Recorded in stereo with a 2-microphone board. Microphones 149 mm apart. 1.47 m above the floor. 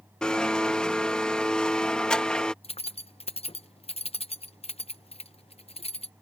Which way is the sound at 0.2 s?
5° left (ahead or behind).